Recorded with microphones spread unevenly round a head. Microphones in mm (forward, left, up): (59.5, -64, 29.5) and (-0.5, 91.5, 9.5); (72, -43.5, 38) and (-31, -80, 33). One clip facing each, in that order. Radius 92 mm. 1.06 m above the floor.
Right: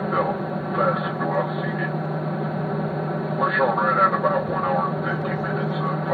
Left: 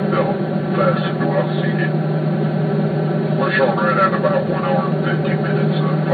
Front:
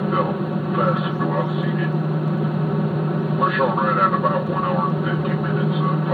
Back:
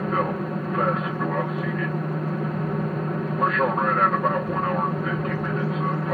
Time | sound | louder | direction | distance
0.0 | an aircraft | left 6 dB, front 4 dB | 90° left | ?